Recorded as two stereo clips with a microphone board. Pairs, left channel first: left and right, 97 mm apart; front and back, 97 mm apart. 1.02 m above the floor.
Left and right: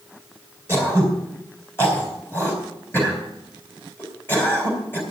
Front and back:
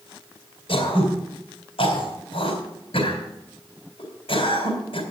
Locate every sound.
0.7 s throat clearing: 20° left, 4 m